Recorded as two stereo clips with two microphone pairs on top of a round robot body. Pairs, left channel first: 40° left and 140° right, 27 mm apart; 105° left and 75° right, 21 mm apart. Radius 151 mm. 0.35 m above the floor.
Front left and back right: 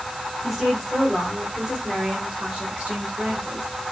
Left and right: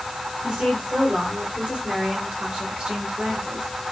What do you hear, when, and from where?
0.4 s a woman speaking: 40° right, 2 m; by 3.7 s 105° right, 2.5 m